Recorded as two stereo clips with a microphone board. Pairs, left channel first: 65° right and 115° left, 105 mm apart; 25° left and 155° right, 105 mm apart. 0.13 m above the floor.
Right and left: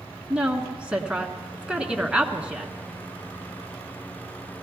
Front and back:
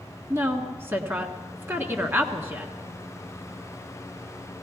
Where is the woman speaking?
Straight behind, 1.2 m.